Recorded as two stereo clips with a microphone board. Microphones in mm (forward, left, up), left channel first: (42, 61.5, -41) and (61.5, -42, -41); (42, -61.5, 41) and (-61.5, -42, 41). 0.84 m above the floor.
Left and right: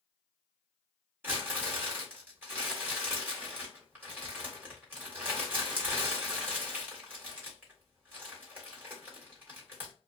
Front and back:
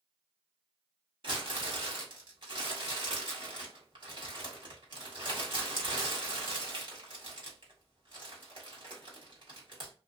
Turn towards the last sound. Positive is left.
turn(degrees=-150)